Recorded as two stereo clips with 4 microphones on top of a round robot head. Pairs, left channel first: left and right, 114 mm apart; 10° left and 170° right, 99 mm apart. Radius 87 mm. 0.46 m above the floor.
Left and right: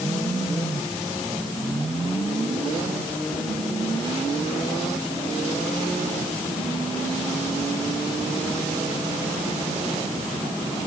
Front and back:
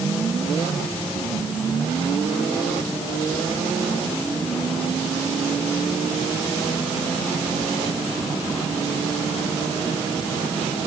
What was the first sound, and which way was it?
Only background noise.